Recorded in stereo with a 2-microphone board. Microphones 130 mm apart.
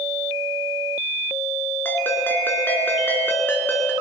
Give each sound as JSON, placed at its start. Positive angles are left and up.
{"t": 1.9, "sound": "a ringtone", "side_deg": 15, "distance_m": 1.9}